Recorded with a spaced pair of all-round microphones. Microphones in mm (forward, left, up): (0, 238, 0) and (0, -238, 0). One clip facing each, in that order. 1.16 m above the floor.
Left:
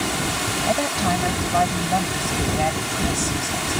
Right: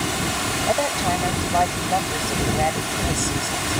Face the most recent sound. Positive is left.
turn(degrees=35)  # may be behind; listen again after turning